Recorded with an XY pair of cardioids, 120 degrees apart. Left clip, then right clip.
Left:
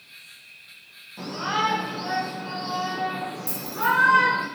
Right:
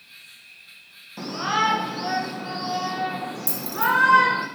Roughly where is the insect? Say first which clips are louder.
Even; ahead.